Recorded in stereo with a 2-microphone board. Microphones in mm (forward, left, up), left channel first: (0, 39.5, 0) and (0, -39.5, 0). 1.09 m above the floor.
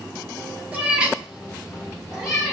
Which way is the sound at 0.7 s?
15° right (ahead or behind).